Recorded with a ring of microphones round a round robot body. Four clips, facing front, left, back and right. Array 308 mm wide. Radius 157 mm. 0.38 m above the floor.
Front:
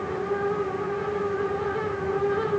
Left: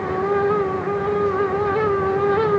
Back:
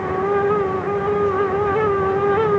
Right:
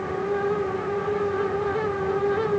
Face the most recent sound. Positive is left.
No sound to turn to.